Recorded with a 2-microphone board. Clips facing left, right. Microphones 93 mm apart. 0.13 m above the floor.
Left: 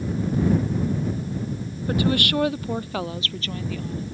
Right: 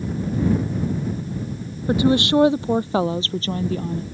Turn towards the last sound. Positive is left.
turn(degrees=-40)  # may be behind; listen again after turning